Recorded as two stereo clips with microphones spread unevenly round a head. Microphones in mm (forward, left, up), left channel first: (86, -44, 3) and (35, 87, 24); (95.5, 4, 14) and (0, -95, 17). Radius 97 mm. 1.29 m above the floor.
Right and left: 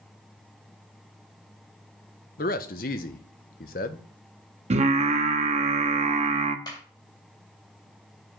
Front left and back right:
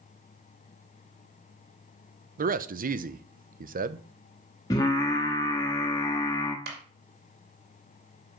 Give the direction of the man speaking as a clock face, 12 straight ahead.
4 o'clock.